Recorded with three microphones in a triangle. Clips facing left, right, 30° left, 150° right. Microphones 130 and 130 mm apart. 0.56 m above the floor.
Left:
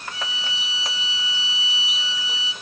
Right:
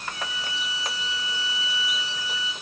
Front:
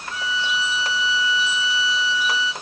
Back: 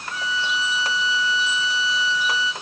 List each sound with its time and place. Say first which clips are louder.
0.1 s a violin: even, front 1 dB; 60° right, 1.2 m